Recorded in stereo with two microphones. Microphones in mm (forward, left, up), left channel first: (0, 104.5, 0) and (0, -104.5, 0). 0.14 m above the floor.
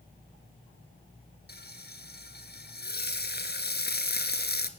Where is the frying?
50° left (ahead or behind), 1.9 m.